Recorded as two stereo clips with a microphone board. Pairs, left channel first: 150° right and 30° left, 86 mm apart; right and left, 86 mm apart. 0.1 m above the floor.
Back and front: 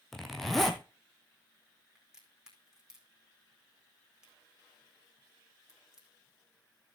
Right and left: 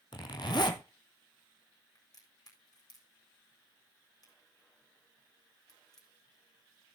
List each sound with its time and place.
0.1 s a zipper: 60° right, 1.6 m
1.9 s a crack: 50° right, 4.5 m